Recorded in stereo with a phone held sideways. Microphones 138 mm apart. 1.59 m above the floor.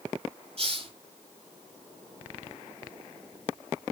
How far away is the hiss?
About 4 m.